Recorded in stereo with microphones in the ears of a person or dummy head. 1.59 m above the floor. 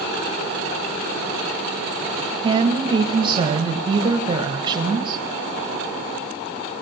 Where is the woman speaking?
30° right (ahead or behind), 1.4 m.